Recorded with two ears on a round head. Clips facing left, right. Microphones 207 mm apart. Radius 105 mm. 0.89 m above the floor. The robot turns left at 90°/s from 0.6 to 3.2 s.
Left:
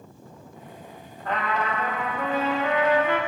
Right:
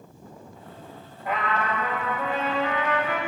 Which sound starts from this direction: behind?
A trumpet, at 1.2 s.